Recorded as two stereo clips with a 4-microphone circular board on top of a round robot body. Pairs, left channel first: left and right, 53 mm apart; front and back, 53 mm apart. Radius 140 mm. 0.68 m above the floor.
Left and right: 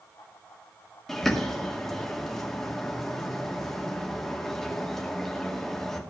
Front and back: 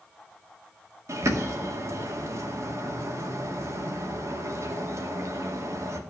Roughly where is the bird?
Behind.